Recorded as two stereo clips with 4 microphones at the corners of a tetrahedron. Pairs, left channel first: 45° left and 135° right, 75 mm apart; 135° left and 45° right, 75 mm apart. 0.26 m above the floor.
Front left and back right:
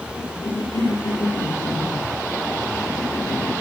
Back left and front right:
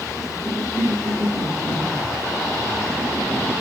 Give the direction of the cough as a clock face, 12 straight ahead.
10 o'clock.